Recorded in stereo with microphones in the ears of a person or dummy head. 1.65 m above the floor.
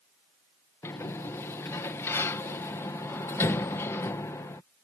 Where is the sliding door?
15° left (ahead or behind).